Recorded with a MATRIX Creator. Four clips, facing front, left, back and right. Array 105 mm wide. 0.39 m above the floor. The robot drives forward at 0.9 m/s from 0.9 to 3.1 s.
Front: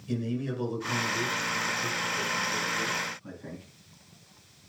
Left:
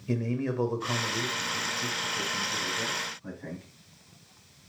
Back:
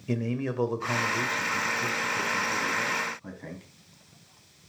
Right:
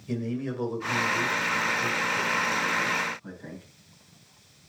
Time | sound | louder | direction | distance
0.1 | a man speaking | left 1 dB, back 2 dB | 155° left | 1.8 m